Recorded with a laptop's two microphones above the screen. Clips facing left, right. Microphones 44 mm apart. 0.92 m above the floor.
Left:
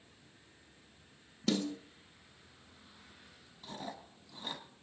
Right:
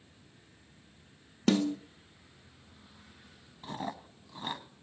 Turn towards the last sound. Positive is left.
turn(degrees=-40)  # may be behind; listen again after turning